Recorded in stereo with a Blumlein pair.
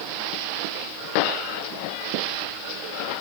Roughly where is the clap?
No clap in this recording.